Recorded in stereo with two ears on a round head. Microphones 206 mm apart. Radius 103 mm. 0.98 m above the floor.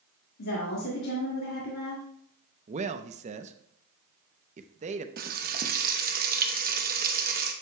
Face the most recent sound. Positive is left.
turn(degrees=-40)  # may be behind; listen again after turning